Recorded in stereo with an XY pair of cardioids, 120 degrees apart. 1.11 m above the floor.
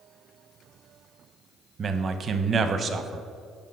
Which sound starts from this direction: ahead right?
A man speaking, at 1.8 s.